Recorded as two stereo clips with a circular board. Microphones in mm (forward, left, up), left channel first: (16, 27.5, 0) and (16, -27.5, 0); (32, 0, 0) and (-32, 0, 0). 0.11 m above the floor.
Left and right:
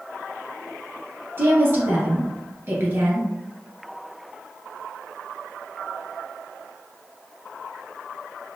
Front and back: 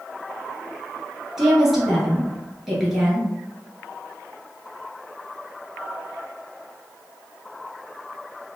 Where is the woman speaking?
100° right, 1.7 m.